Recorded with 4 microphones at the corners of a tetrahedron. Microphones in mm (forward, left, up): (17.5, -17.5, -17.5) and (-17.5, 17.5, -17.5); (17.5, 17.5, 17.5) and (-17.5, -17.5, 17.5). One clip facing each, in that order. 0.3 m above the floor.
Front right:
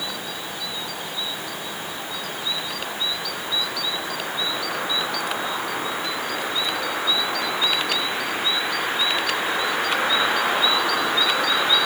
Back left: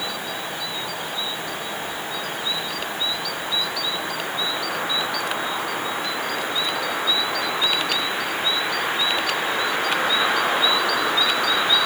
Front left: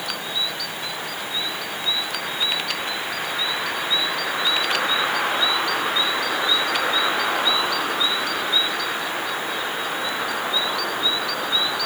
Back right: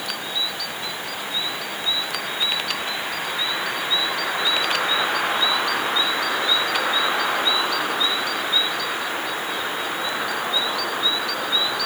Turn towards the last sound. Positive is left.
No sound to turn to.